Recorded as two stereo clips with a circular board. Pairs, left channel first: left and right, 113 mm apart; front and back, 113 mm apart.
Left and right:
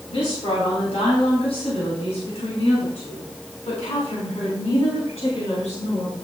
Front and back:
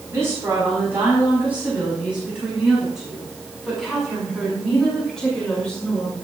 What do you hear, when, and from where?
0.1 s a woman speaking: 115° left, 4.5 m; by 6.1 s 80° left, 6.5 m